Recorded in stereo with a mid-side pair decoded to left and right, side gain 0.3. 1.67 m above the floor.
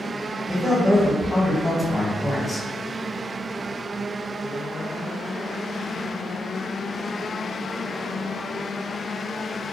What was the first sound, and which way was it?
A man speaking, 5° left.